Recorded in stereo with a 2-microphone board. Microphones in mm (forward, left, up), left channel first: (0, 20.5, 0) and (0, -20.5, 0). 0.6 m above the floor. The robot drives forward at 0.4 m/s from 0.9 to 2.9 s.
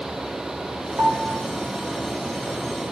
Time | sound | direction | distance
1.0 | a piano | 70° right (ahead or behind) | 1.9 m